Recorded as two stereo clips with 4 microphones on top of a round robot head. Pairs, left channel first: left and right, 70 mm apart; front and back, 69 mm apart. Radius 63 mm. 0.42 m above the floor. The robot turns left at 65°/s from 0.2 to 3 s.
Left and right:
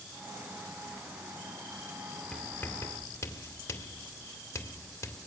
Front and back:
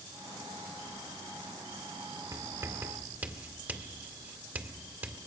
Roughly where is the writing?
Behind.